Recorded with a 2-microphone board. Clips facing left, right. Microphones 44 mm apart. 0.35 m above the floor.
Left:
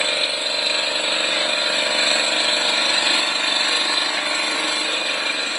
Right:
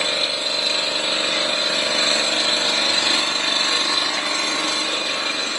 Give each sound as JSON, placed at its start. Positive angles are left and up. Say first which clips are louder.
{"t": 0.0, "sound": "an engine running", "louder": "left 1 dB", "side_deg": 10, "distance_m": 1.7}